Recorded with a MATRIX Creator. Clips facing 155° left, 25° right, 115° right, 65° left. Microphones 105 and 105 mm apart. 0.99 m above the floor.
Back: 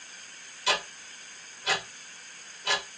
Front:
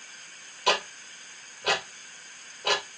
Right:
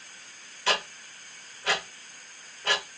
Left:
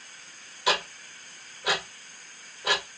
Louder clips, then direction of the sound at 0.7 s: Front 4 dB, left 2 dB; 10° right.